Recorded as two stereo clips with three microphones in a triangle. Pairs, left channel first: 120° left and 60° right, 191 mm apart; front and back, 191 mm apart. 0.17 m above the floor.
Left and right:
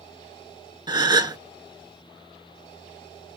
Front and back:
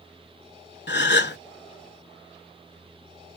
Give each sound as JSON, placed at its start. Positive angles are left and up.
{"t": 0.9, "sound": "a gasp", "azimuth_deg": 5, "distance_m": 0.6}